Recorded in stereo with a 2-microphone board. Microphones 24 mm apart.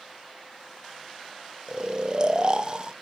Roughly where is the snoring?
Right.